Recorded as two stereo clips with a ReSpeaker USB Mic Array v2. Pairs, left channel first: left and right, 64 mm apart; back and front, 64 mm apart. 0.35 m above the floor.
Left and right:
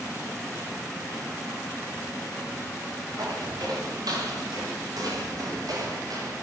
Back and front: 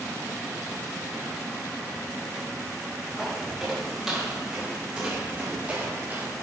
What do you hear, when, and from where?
3.2 s footsteps: 90° right, 7.5 m; by 6.3 s 65° right, 6.5 m